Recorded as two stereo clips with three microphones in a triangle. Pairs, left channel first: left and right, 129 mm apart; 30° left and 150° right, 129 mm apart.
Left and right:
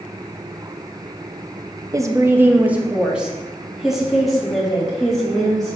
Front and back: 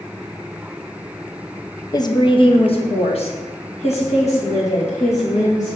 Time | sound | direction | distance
1.9 | a woman speaking | 30° right | 0.6 m